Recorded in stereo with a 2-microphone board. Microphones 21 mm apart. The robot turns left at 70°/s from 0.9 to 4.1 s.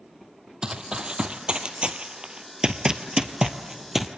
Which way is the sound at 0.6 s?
35° right (ahead or behind).